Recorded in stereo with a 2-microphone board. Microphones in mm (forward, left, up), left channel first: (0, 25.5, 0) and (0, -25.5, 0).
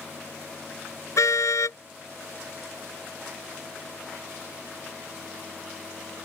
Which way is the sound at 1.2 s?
85° left.